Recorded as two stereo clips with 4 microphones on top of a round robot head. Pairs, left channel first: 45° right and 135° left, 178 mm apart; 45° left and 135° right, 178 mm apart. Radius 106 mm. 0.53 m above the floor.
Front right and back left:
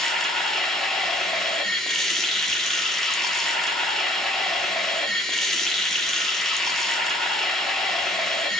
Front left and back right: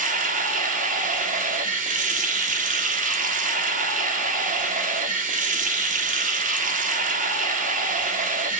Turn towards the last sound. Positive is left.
turn(degrees=-135)